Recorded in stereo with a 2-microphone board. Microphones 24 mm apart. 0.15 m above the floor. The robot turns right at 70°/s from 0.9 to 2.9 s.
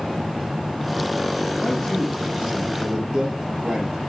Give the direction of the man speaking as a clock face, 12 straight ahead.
7 o'clock.